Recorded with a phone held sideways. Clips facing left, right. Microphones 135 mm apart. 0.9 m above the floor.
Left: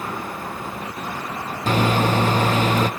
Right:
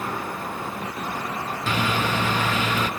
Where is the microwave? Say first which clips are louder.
Left 6 dB; 40° left (ahead or behind), 0.6 m.